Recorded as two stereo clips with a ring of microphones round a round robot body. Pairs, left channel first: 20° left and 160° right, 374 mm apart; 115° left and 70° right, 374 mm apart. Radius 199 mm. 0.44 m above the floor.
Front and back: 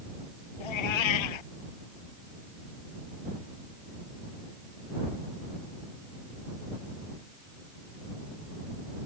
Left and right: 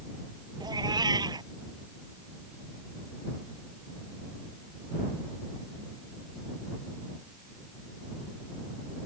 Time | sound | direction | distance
0.6 | a cat meowing | 10° left | ?